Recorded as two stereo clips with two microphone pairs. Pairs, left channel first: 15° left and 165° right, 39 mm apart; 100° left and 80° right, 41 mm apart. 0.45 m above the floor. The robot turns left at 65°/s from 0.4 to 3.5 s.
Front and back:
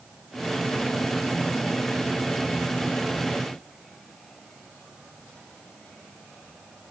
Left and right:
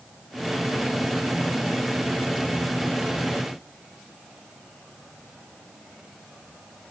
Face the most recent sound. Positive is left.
No sound to turn to.